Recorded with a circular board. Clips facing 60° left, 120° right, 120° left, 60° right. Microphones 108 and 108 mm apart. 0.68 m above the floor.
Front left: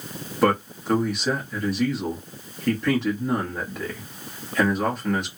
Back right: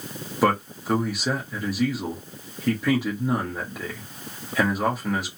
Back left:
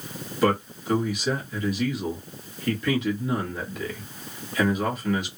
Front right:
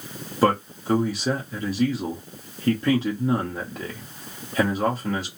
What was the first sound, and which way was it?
A man speaking, 40° right.